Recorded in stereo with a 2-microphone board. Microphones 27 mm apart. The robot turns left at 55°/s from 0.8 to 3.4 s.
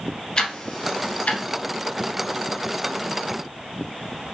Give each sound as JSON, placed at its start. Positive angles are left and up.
{"t": 0.4, "sound": "ticking", "side_deg": 35, "distance_m": 0.6}